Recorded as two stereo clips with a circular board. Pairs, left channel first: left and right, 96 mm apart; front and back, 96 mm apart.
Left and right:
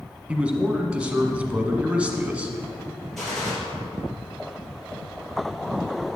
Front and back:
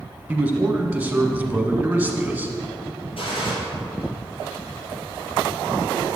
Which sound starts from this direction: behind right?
A man speaking, at 0.3 s.